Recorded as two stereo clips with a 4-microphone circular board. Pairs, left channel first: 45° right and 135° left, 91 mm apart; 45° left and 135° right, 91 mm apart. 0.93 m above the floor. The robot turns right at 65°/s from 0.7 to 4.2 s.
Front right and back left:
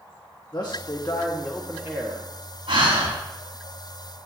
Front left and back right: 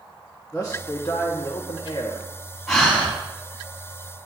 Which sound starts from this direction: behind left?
Breathing, at 2.7 s.